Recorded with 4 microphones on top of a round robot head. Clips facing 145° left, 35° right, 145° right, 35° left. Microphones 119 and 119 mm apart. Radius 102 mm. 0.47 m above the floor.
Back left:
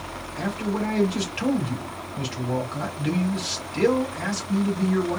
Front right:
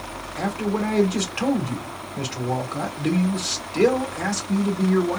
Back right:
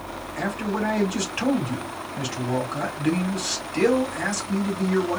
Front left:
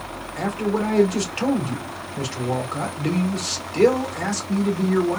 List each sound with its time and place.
0.4 s a man speaking: 15° right, 2.0 m